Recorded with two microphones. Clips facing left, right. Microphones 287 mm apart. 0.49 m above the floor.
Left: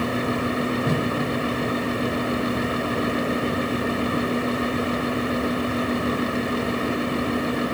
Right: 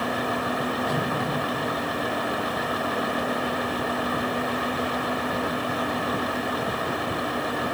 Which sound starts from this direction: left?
A whoosh, at 0.8 s.